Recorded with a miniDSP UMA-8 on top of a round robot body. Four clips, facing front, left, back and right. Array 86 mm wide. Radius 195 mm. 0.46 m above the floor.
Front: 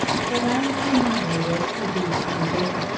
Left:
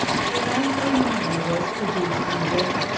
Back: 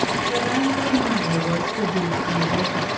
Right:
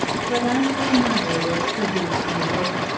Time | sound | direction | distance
0.3 | a woman speaking | 120° right | 9 m